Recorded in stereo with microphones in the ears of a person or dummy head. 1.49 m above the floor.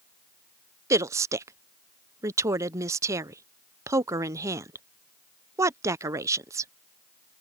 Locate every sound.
0.9 s a woman speaking: 15° right (ahead or behind)